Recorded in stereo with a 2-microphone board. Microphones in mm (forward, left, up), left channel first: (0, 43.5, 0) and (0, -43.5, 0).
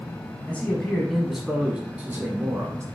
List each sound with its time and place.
0.5 s a man speaking: 20° left (ahead or behind), 1.1 m; by 2.9 s 35° right (ahead or behind), 1.4 m